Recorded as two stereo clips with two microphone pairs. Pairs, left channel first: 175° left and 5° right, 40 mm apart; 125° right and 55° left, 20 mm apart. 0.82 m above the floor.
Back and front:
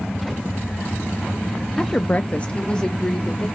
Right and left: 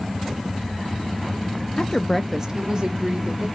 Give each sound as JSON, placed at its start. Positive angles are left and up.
{"t": 1.8, "sound": "a woman speaking", "azimuth_deg": -115, "distance_m": 0.7}